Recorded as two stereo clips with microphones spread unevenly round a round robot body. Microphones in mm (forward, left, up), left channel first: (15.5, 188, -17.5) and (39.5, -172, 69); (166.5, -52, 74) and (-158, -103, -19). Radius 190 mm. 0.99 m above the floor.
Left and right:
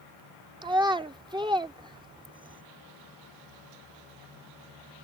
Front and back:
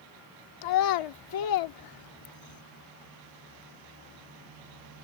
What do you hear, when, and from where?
0.6 s a child speaking: 10° right